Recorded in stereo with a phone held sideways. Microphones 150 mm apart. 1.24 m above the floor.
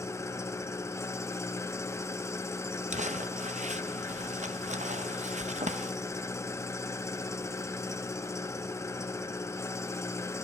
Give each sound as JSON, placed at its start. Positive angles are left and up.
{"t": 0.0, "sound": "an engine running", "side_deg": 20, "distance_m": 0.7}
{"t": 2.9, "sound": "crumpling", "side_deg": -50, "distance_m": 0.8}